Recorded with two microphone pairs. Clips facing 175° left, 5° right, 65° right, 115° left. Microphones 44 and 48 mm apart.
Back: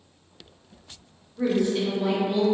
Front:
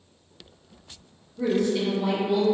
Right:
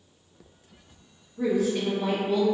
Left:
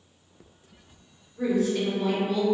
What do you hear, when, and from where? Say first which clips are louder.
1.4 s a woman speaking: even, even; 145° right, 1.1 m; by 2.4 s 90° right, 1.2 m